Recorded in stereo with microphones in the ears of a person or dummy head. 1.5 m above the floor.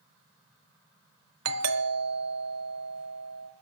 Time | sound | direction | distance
1.4 | a doorbell | 65° right (ahead or behind) | 1.2 m